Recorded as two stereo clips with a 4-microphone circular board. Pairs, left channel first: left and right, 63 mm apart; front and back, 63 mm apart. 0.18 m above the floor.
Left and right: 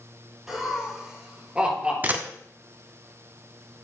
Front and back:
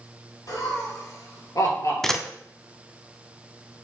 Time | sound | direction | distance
0.5 | laughter | 5° right | 3.5 m
2.0 | a camera shutter | 80° right | 0.8 m